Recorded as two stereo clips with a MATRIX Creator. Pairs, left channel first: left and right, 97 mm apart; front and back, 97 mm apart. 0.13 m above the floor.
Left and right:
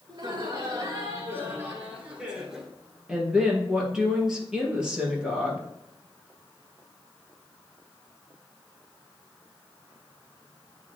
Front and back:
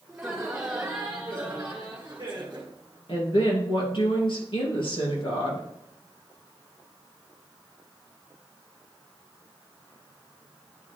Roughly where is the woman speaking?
Ahead.